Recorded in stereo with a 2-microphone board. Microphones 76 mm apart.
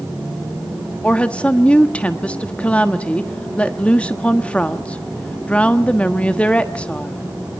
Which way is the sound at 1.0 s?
15° left (ahead or behind).